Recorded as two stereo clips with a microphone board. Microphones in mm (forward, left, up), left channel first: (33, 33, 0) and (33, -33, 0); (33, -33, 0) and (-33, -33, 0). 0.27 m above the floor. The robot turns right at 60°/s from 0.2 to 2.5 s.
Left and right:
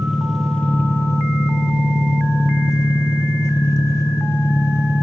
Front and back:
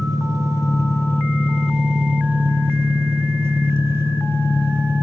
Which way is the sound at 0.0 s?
5° right.